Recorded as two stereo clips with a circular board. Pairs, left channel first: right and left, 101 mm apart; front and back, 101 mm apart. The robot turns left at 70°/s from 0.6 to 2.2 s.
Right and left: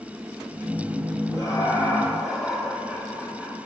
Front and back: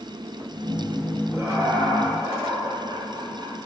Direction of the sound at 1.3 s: 120° right.